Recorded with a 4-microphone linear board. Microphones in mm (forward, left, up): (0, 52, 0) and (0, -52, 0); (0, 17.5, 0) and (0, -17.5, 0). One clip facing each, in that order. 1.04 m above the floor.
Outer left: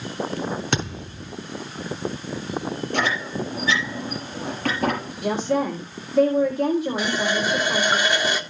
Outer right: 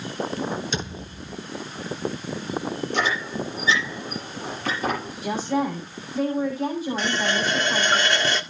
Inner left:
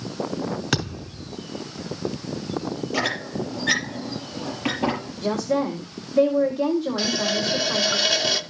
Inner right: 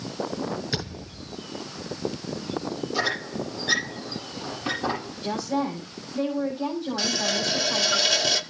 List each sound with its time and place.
0.7 s a thud: 65° left (ahead or behind), 5 m
2.9 s a squeak: 60° left (ahead or behind), 6 m
5.2 s a woman speaking: 65° left (ahead or behind), 4.5 m
7.0 s a running tap: 10° left (ahead or behind), 1.7 m